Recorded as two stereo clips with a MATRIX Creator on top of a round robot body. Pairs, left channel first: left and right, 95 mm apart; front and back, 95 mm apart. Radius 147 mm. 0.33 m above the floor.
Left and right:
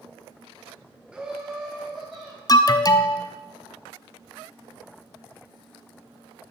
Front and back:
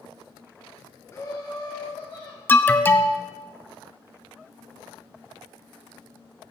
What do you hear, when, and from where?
1.1 s laughter: 20° right, 1.0 m; by 2.4 s 5° right, 2 m
2.5 s an alarm: 60° left, 0.7 m